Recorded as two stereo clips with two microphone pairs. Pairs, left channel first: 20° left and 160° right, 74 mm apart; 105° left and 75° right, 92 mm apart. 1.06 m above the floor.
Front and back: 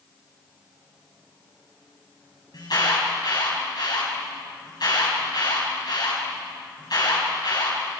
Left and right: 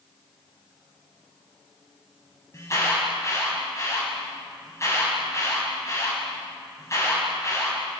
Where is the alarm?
45° left, 6 m.